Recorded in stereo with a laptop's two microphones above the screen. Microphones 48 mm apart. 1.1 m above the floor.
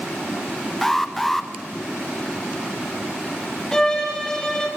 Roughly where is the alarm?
Centre.